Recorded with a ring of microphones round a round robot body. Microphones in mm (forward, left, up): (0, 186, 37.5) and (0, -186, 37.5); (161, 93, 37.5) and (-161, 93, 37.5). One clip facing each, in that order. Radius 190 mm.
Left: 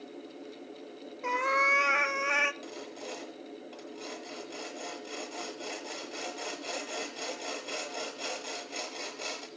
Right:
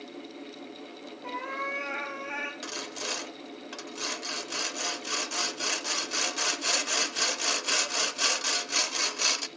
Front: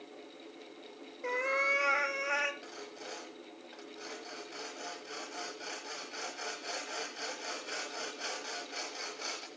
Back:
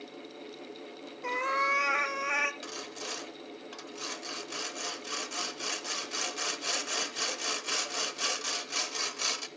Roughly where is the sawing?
Behind right.